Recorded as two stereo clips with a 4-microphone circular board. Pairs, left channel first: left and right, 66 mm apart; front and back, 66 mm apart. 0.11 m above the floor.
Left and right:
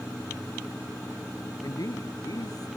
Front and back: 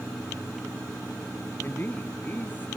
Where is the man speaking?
60° left; by 2.7 s 65° left.